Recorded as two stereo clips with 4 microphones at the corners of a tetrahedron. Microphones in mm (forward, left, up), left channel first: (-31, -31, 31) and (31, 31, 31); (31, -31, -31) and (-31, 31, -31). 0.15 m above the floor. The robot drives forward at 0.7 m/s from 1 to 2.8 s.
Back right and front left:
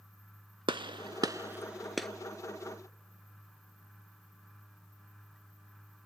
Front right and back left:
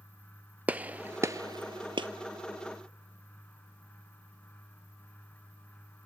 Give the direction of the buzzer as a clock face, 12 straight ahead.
No buzzer in this recording.